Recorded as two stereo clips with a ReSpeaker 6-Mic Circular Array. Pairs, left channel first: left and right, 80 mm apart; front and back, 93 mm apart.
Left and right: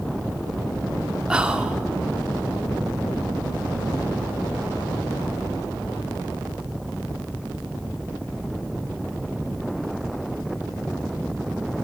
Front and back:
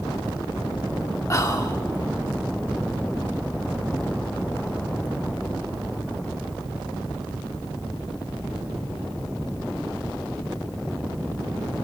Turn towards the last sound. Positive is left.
turn(degrees=-20)